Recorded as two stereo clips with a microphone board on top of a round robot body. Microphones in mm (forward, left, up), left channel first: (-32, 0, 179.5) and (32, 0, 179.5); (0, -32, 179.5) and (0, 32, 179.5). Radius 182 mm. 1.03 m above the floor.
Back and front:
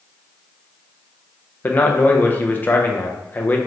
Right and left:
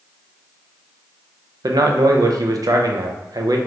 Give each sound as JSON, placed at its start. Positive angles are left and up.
{"t": 1.6, "sound": "a man speaking", "azimuth_deg": 115, "distance_m": 0.6}